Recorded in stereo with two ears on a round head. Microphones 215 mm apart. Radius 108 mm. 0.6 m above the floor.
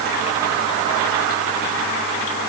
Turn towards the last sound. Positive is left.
No sound to turn to.